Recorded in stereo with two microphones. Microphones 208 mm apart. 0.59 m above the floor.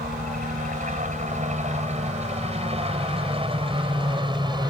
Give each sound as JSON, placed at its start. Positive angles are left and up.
{"t": 0.0, "sound": "a helicopter", "side_deg": -40}